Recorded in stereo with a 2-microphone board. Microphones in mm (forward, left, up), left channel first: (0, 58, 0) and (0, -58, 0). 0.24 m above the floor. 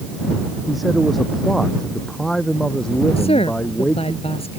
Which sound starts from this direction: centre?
A man speaking, at 0.7 s.